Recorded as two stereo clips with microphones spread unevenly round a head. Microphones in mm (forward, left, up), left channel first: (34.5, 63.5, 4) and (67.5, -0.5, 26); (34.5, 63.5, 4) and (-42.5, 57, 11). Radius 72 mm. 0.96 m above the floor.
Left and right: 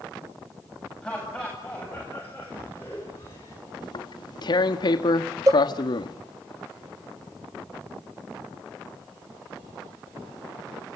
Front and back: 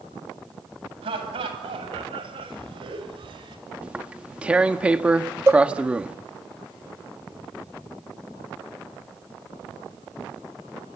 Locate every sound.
1.0 s laughter: 160° right, 8 m; by 3.6 s straight behind, 5.5 m
3.8 s tearing paper: 110° left, 1.3 m
5.5 s a cowbell: 110° right, 0.5 m